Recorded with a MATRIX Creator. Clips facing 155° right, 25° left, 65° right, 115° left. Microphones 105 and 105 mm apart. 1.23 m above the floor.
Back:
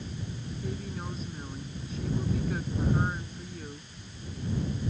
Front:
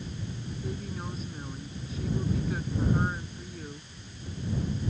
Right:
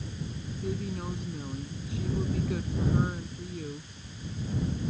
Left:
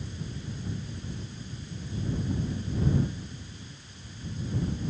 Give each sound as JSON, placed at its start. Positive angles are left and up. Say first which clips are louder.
{"t": 0.6, "sound": "a woman speaking", "louder": "even, right 9 dB", "azimuth_deg": -65}